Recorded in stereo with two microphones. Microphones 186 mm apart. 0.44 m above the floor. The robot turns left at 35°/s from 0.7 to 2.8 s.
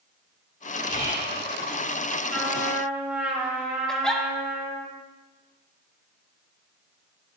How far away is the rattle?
I don't hear a rattle.